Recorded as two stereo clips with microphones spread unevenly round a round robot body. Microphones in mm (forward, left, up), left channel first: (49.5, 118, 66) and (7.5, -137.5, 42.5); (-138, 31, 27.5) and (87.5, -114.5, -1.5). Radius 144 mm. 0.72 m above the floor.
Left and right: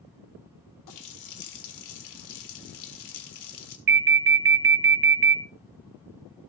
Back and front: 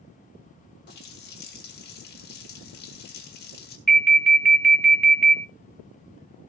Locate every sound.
0.9 s a running tap: 90° left, 1.7 m
3.9 s an alarm: 120° right, 1.5 m